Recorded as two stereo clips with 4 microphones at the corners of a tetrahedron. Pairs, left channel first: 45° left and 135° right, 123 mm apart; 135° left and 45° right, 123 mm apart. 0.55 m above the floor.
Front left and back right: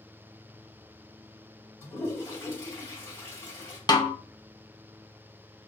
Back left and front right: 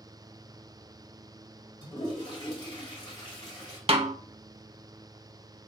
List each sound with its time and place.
1.8 s a toilet flushing: 105° left, 2.5 m
3.9 s a snare drum: 10° right, 0.5 m